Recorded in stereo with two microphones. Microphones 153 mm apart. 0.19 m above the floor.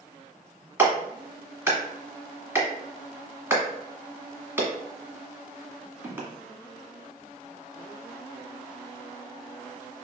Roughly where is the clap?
Centre.